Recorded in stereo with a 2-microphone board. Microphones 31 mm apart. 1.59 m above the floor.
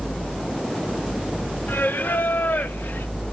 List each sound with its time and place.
1.7 s singing: 65° left (ahead or behind), 0.7 m